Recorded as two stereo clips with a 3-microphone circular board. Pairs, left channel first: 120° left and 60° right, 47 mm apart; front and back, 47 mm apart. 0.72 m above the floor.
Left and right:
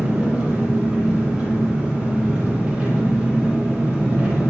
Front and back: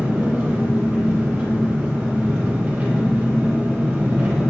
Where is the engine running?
120° right, 8.5 m.